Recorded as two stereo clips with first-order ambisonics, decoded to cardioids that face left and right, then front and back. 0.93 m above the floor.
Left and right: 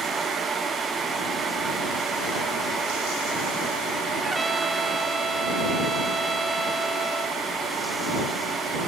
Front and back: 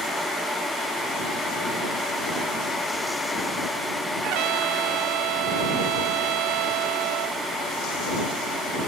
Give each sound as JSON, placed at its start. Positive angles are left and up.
{"t": 4.2, "sound": "a trumpet", "azimuth_deg": -170}